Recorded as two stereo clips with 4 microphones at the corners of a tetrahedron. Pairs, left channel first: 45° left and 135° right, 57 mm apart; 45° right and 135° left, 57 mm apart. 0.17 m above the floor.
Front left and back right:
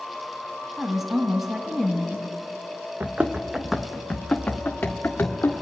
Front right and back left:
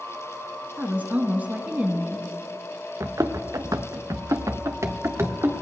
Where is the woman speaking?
145° left, 1.3 m.